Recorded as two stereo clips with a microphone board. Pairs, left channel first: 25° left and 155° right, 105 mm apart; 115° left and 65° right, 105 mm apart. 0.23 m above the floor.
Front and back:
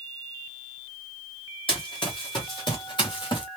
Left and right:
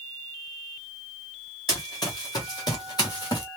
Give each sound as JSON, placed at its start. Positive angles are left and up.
{"t": 1.7, "sound": "running footsteps", "azimuth_deg": 65, "distance_m": 2.5}